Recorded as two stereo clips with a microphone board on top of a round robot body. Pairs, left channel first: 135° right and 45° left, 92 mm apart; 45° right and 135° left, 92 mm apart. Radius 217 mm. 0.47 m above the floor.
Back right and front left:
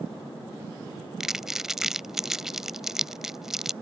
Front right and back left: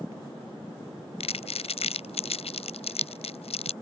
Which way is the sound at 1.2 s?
40° right.